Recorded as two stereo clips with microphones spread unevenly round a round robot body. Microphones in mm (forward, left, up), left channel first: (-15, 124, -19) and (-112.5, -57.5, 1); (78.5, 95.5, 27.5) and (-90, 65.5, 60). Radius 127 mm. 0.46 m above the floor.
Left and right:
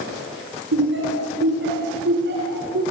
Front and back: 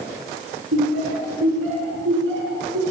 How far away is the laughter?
About 8 m.